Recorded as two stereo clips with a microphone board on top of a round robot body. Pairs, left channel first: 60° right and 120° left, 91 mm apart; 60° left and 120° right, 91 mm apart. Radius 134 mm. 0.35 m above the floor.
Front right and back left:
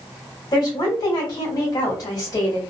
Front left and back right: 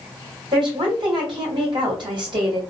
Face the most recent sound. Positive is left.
turn(degrees=-105)